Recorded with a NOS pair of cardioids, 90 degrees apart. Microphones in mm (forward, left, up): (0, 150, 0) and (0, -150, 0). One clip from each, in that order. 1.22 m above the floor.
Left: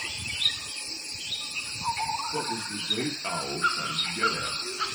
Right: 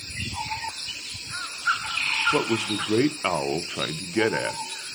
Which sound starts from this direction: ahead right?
A man speaking, at 2.3 s.